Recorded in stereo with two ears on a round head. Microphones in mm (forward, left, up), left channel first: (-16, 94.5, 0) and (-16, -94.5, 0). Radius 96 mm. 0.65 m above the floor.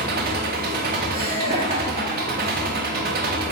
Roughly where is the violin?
I don't hear a violin.